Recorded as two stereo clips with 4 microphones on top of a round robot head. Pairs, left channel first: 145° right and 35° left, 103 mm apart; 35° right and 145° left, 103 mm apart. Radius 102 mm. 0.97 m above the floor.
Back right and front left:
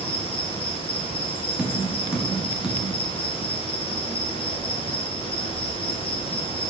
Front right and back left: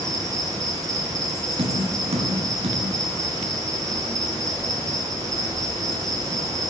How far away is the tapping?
About 1.9 m.